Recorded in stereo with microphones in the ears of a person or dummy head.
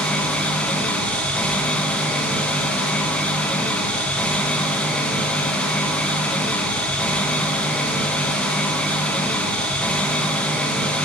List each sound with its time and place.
0.0 s an engine running: 5° left (ahead or behind), 0.8 m